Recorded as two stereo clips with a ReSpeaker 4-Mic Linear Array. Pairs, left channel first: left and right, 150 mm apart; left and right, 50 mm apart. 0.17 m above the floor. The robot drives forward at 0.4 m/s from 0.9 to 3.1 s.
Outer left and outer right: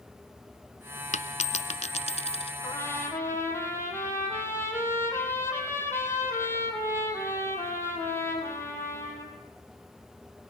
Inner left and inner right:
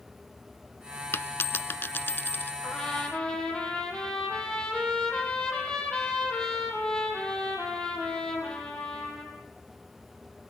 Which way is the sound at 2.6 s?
15° left (ahead or behind).